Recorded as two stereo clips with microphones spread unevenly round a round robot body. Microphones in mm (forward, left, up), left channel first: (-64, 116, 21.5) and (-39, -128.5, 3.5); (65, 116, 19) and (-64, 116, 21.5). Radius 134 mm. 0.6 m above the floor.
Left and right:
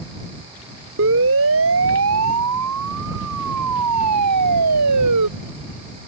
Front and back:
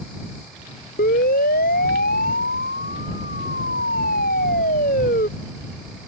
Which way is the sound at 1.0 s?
35° right.